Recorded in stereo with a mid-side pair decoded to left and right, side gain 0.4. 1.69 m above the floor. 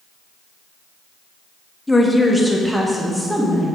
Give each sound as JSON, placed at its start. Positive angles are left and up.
{"t": 1.9, "sound": "a woman speaking", "azimuth_deg": 15, "distance_m": 1.3}